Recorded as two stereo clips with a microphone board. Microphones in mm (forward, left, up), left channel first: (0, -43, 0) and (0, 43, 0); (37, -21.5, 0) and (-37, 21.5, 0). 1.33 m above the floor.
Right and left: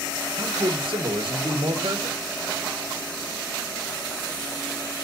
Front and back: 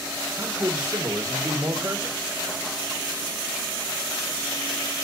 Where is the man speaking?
90° left, 1.7 m.